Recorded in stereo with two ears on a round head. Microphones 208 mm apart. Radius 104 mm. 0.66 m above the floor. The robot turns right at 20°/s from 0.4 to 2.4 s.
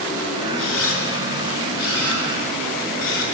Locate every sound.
0.6 s a camera shutter: 60° left (ahead or behind), 5.5 m; by 3.2 s 85° left, 5.5 m